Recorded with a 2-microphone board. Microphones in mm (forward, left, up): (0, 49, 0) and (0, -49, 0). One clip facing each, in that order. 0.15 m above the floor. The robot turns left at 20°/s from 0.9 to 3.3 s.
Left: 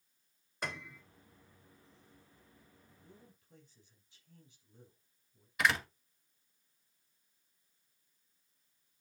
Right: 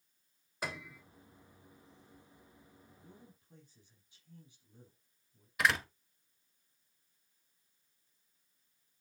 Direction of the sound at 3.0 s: 20° right (ahead or behind).